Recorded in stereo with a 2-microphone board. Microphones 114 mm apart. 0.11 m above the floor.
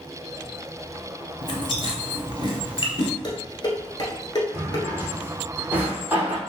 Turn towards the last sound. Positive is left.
turn(degrees=-15)  # may be behind; listen again after turning